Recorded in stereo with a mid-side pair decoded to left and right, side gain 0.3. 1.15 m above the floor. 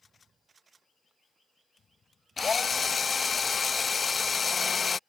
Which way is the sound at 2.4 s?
50° left.